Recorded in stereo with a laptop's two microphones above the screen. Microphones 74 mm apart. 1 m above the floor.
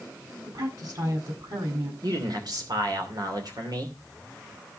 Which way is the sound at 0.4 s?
60° right (ahead or behind).